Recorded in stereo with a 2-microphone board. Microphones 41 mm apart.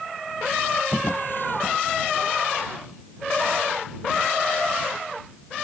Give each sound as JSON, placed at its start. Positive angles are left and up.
{"t": 0.9, "sound": "a drawer", "side_deg": 50}